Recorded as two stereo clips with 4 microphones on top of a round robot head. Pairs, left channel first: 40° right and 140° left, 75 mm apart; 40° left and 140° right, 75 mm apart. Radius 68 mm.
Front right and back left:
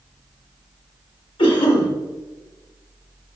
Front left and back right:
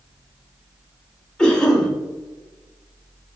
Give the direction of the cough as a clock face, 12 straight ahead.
1 o'clock.